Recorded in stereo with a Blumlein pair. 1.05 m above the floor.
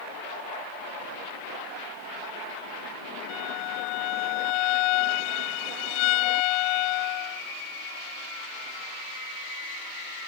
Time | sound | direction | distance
3.3 | a violin | 40° left | ?